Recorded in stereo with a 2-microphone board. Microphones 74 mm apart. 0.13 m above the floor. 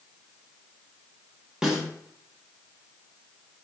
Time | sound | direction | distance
1.6 | a snare drum | 5° right (ahead or behind) | 0.9 m